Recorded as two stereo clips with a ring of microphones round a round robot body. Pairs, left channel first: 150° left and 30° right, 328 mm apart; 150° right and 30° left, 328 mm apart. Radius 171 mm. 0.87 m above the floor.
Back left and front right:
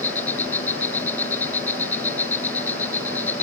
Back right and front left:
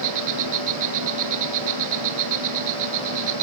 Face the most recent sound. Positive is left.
turn(degrees=65)